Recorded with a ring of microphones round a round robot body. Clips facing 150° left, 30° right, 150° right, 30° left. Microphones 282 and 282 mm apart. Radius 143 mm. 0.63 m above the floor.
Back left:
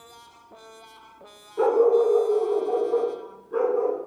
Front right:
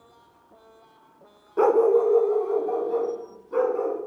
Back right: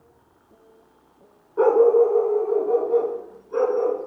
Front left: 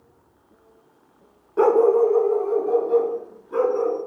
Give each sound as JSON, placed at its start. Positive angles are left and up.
{"t": 1.6, "sound": "a dog barking", "azimuth_deg": -10, "distance_m": 0.7}